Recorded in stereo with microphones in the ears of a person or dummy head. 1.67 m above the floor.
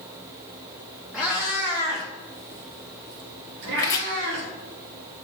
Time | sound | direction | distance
1.1 | a cat meowing | 5° right (ahead or behind) | 1.0 m
3.8 | chopping | 20° left (ahead or behind) | 1.1 m